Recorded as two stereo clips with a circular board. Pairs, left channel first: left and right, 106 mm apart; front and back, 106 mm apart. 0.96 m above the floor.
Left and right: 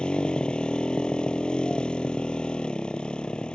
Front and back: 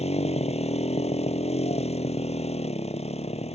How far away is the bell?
No bell in this recording.